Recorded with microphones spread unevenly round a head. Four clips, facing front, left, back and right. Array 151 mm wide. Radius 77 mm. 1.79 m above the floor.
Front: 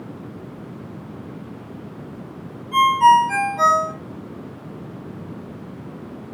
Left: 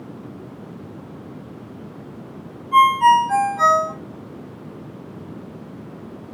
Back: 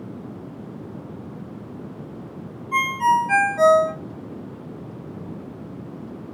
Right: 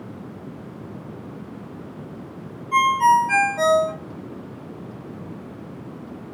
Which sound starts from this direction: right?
A ringtone, at 2.7 s.